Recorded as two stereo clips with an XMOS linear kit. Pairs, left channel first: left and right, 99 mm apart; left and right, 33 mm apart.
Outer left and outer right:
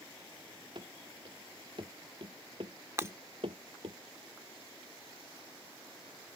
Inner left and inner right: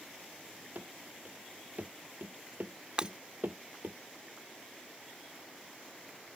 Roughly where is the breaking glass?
Right.